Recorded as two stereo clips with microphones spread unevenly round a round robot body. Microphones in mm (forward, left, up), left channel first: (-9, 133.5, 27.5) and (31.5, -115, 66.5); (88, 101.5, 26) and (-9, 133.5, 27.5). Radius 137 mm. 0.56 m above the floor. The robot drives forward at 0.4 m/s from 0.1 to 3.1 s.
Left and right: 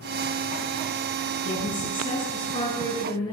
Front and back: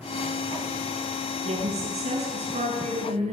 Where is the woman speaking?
170° left, 7 m.